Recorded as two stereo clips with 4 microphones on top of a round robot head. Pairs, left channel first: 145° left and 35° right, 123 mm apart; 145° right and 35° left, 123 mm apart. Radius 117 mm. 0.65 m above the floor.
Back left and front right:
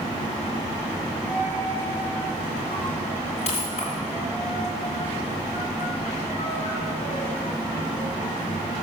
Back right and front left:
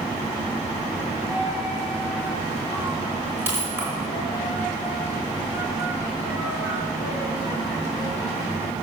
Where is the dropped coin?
110° left, 4 m.